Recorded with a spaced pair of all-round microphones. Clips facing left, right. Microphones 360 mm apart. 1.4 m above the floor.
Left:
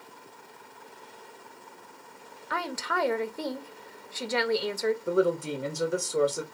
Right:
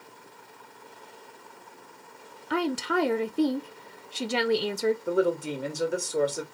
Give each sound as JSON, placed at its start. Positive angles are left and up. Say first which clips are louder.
{"t": 2.5, "sound": "a woman speaking", "louder": "right 8 dB", "side_deg": -45, "distance_m": 0.7}
{"t": 5.1, "sound": "a woman speaking", "louder": "even", "side_deg": 5, "distance_m": 1.3}